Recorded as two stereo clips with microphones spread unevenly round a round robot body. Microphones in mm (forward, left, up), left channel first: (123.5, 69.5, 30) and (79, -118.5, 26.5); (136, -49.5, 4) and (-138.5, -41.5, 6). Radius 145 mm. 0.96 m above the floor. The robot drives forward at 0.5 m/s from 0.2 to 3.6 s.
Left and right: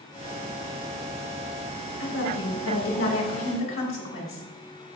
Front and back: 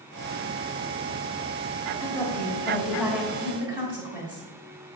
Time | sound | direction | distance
2.0 | a woman speaking | 75° left | 1.7 m